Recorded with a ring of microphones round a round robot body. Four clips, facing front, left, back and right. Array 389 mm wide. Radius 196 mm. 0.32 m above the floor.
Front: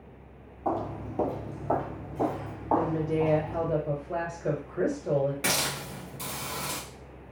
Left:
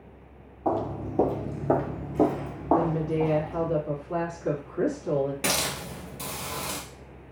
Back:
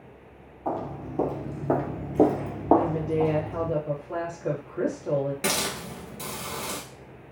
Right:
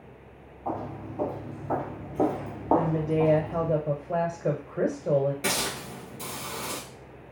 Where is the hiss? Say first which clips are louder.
Left 1 dB, back 2 dB; 125° left, 1.3 m.